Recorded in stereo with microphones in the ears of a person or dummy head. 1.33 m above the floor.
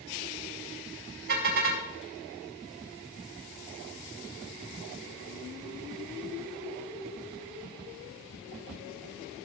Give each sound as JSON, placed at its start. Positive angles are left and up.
{"t": 1.3, "sound": "a car horn", "side_deg": -55, "distance_m": 4.5}